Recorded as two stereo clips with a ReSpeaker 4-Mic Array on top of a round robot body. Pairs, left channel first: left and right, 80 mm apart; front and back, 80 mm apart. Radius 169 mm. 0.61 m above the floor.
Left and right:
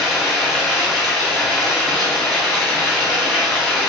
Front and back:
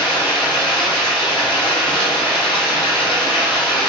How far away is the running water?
About 0.9 m.